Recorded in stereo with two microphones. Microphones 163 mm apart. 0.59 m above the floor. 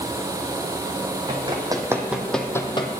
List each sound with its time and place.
1.3 s running footsteps: 35° right (ahead or behind), 1.7 m; by 2.9 s 35° left (ahead or behind), 1.0 m